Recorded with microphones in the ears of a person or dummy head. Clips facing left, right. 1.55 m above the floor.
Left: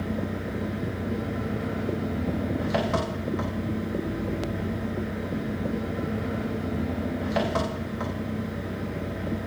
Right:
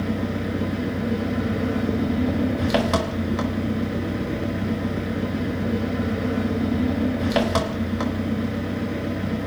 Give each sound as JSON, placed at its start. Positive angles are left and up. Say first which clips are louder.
{"t": 0.0, "sound": "an engine running", "louder": "right 5 dB", "side_deg": -60, "distance_m": 1.3}